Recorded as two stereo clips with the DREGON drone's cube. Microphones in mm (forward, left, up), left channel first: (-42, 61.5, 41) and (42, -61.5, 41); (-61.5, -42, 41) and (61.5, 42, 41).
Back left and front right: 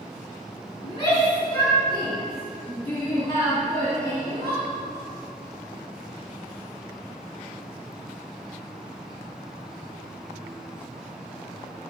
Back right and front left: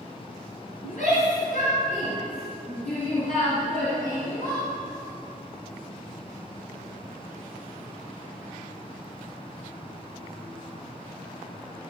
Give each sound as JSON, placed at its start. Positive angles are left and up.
{"t": 0.8, "sound": "a shout", "azimuth_deg": 180, "distance_m": 3.5}